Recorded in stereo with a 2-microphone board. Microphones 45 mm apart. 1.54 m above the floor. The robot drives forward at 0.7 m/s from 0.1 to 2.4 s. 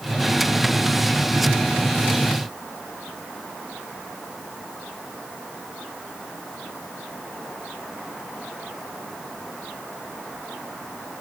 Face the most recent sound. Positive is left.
No sound to turn to.